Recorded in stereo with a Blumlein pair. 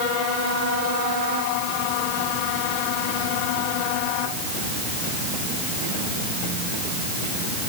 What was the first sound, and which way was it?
Only background noise.